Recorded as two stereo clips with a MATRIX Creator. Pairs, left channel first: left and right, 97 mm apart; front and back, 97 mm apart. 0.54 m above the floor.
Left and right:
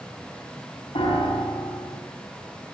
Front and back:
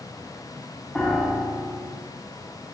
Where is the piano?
75° left, 1.8 m.